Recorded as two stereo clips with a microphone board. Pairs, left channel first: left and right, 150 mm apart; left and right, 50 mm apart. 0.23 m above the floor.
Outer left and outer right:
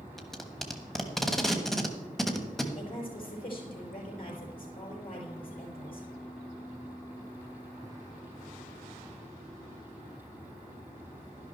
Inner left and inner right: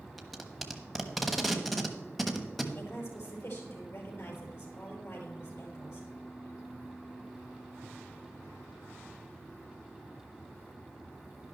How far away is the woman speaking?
About 5 m.